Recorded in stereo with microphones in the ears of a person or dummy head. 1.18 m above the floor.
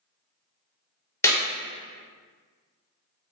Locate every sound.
1.2 s a clap: 15° left (ahead or behind), 0.7 m